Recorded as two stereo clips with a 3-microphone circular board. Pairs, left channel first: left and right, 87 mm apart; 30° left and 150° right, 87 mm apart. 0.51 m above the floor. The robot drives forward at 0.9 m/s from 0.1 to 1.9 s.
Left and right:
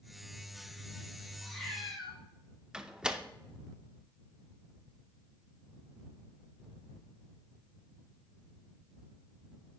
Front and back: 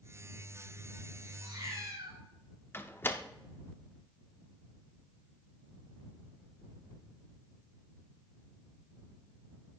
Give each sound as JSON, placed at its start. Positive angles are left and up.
{"t": 1.4, "sound": "a cat meowing", "azimuth_deg": 175, "distance_m": 3.5}
{"t": 2.7, "sound": "a door slam", "azimuth_deg": -15, "distance_m": 0.7}